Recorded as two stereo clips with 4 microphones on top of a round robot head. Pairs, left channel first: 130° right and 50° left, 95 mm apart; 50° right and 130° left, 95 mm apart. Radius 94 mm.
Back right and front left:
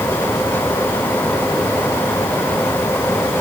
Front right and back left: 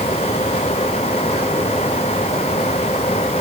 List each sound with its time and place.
Only background noise.